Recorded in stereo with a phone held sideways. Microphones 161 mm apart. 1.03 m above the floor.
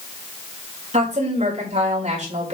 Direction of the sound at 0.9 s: 45° right (ahead or behind).